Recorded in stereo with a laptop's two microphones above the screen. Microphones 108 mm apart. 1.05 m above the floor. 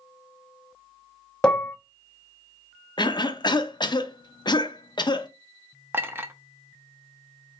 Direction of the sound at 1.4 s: 5° left (ahead or behind).